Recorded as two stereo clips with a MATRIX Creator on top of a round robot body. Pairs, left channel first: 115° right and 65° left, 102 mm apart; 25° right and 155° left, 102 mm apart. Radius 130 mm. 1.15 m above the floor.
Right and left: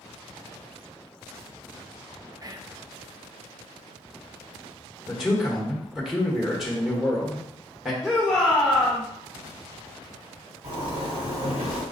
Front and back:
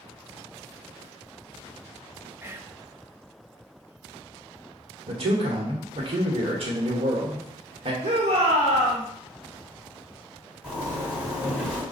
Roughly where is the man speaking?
Behind left.